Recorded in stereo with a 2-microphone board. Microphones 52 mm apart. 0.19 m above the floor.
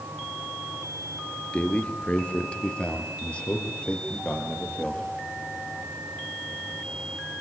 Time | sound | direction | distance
1.5 | a man speaking | 25° left (ahead or behind) | 3 m